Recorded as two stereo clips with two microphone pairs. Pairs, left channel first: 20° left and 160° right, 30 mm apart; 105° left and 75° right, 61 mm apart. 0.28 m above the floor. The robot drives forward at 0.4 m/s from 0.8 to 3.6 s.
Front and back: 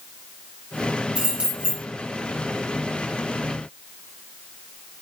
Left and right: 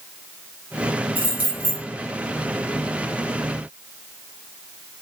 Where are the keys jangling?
130° right, 1.6 m; by 1.8 s 140° right, 1.7 m.